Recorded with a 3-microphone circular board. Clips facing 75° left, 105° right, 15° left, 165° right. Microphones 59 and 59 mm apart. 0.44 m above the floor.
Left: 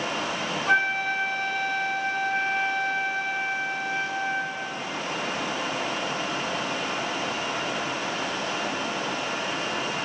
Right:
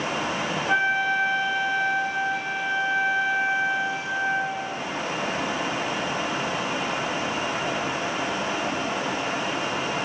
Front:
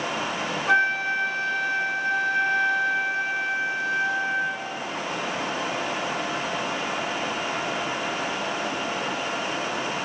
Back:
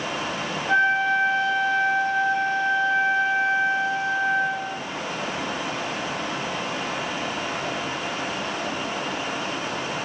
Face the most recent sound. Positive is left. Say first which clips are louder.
# right 1 dB, back 2 dB
turn(degrees=40)